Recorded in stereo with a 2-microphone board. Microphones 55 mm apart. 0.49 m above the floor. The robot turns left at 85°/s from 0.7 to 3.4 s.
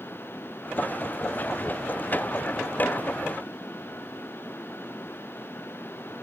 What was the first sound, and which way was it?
Only background noise.